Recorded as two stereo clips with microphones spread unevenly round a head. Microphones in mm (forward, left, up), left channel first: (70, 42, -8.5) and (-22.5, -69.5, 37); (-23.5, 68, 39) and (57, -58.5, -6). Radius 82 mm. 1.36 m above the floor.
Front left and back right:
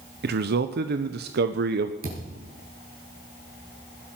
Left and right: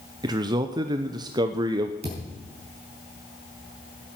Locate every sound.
0.2 s a man speaking: 110° right, 0.8 m
2.0 s a thud: 115° right, 6 m